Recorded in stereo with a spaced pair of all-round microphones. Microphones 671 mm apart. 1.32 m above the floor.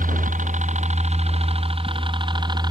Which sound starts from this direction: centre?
A helicopter, at 0.0 s.